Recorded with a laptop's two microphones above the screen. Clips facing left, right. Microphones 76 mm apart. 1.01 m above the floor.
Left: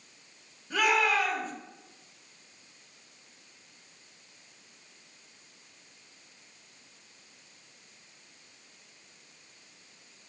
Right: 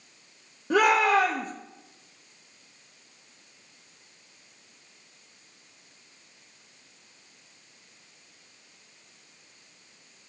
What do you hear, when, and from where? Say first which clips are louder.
0.7 s a shout: right 6 dB; 75° right (ahead or behind), 1.1 m